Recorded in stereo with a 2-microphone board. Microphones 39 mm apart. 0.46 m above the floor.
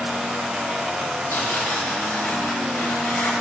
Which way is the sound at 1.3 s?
80° left.